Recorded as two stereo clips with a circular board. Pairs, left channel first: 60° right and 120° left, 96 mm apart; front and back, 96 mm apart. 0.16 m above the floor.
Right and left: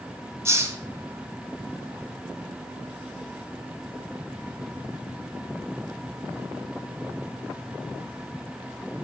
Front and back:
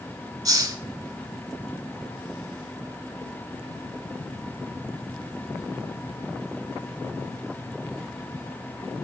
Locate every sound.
0.5 s a hiss: 165° left, 0.8 m